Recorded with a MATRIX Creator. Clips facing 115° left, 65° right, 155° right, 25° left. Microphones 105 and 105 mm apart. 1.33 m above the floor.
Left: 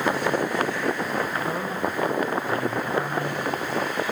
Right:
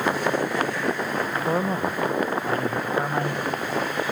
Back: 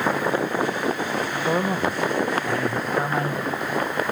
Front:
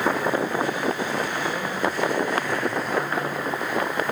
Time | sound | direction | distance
1.5 | a man speaking | 115° right | 1.4 m